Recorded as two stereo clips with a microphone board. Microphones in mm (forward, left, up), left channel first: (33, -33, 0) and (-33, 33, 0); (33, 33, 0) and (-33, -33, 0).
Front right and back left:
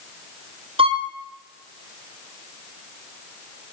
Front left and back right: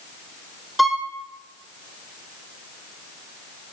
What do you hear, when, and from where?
0.8 s a violin: 135° left, 1.6 m